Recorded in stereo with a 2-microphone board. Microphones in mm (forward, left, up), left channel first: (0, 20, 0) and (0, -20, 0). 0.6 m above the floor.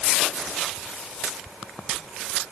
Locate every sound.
Only background noise.